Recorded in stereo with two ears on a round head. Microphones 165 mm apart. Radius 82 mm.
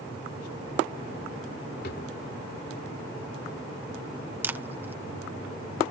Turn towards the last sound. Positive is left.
turn(degrees=-10)  # may be behind; listen again after turning